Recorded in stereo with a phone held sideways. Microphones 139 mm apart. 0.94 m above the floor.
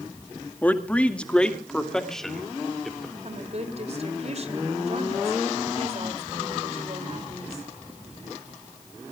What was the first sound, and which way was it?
A man speaking, 10° left (ahead or behind).